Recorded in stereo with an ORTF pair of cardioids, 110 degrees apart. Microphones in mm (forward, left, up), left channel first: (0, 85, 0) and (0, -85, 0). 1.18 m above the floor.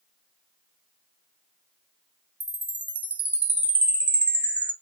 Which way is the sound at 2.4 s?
10° right.